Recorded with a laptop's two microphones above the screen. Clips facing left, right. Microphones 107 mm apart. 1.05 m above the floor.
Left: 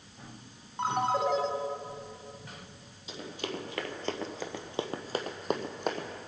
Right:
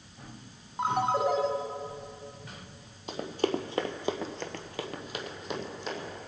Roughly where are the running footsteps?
Right.